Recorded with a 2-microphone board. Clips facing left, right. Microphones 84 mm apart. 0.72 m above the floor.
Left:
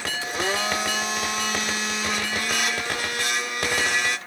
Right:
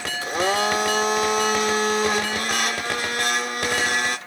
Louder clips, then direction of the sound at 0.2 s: Right 6 dB; 50° right (ahead or behind).